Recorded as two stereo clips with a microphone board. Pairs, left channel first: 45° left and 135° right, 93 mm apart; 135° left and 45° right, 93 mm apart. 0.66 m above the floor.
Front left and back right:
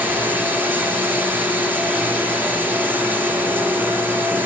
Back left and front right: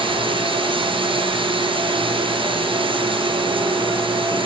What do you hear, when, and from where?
0.0 s running water: 65° right, 9 m